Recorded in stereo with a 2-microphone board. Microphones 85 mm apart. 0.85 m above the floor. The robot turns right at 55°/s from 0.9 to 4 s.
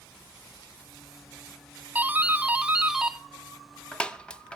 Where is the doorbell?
20° right (ahead or behind), 0.7 m; by 4.6 s 10° left (ahead or behind), 0.7 m.